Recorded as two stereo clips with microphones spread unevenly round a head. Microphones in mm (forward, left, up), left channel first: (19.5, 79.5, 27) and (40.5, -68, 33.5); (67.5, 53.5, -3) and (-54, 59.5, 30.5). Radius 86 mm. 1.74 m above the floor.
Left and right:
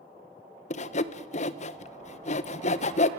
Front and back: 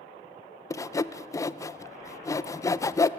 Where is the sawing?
70° left, 1.0 m.